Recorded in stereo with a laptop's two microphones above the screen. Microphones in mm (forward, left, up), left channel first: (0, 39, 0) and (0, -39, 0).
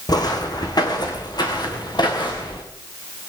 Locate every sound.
0.1 s footsteps: 55° left (ahead or behind), 3 m; by 2.6 s 65° left (ahead or behind), 5 m